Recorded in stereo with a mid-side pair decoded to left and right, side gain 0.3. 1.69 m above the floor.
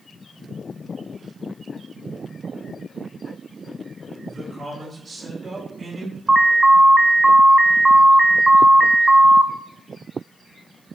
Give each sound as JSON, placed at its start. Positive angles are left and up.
{"t": 4.3, "sound": "a man speaking", "azimuth_deg": -30, "distance_m": 3.0}
{"t": 6.3, "sound": "an alarm", "azimuth_deg": -30, "distance_m": 0.8}